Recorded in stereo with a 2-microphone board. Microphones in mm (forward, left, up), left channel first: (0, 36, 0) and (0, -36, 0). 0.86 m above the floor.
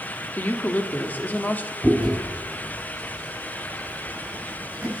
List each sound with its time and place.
0.4 s a woman speaking: 25° left (ahead or behind), 1.4 m
1.8 s chewing: 5° right (ahead or behind), 7.5 m